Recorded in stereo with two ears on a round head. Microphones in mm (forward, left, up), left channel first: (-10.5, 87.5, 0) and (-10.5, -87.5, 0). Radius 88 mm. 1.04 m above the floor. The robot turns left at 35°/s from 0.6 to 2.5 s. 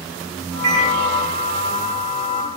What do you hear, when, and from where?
0.6 s a microwave: 40° right (ahead or behind), 1.6 m; by 0.9 s 30° right (ahead or behind), 1.6 m